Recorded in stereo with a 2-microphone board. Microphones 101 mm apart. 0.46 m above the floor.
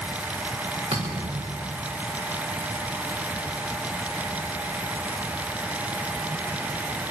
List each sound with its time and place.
0.9 s a thud: 80° right, 8 m